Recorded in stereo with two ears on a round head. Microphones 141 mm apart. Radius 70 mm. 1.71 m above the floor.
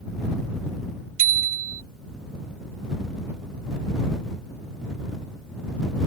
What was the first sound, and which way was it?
A bicycle bell, 70° right (ahead or behind).